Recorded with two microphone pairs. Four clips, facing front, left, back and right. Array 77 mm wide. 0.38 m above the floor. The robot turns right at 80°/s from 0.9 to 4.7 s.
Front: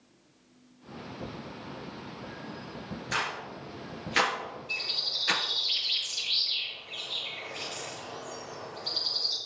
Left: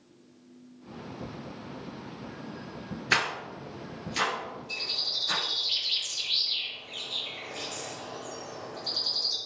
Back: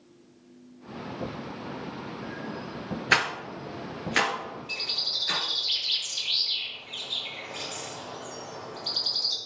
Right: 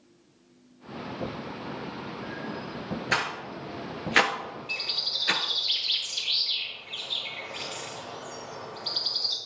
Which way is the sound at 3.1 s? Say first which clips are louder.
Left 2 dB, back 7 dB; 170° left.